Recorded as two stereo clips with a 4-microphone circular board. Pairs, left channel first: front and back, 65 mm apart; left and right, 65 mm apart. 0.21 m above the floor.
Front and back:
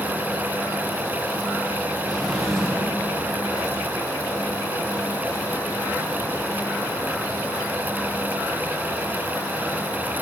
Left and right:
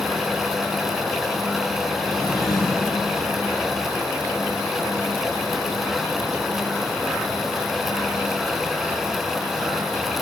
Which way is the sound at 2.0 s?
85° left.